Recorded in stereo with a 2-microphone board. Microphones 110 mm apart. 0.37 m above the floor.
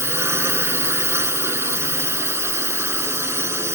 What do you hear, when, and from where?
0.0 s a drone: 25° right (ahead or behind)